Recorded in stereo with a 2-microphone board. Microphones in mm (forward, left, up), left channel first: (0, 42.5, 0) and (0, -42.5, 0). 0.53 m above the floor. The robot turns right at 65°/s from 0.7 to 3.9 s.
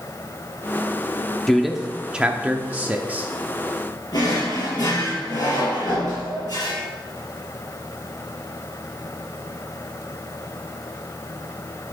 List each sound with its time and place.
1.5 s a man speaking: 5° left (ahead or behind), 0.7 m; by 3.3 s 20° right (ahead or behind), 0.7 m
4.1 s a drawer: 50° left (ahead or behind), 4.5 m